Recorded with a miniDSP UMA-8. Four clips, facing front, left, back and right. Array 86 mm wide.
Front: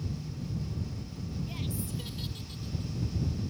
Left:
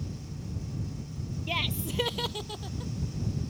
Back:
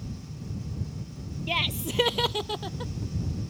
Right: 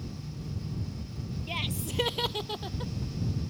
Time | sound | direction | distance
1.5 | laughter | 160° left | ?